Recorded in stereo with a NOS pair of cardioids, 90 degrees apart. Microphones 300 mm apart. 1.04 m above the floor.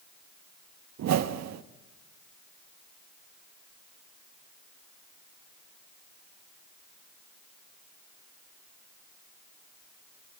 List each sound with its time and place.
1.0 s a whoosh: 60° right, 1.1 m